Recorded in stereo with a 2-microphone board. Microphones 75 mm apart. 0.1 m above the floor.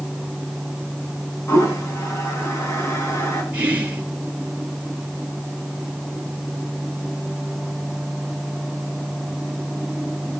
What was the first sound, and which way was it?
A toilet flushing, 35° left (ahead or behind).